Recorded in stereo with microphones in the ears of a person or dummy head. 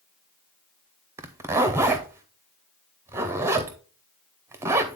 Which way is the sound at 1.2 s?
10° right (ahead or behind).